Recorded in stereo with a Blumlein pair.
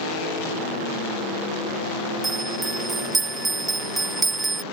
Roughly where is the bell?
Ahead.